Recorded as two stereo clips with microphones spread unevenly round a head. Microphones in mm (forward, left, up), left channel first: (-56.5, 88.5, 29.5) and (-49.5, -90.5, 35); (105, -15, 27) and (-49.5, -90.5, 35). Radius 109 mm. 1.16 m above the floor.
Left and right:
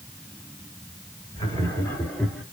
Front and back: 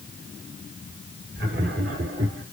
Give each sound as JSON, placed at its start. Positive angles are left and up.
{"t": 1.4, "sound": "laughter", "azimuth_deg": 155, "distance_m": 2.5}